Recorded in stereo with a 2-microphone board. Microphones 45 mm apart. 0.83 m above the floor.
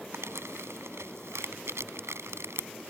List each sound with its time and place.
0.1 s crumpling: 80° right